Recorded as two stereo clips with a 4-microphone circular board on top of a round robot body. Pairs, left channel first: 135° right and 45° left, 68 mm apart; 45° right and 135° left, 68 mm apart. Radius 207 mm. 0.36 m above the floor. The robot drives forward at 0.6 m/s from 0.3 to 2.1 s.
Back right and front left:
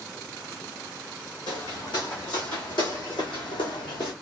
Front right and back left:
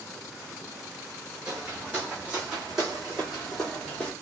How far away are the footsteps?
About 1.7 m.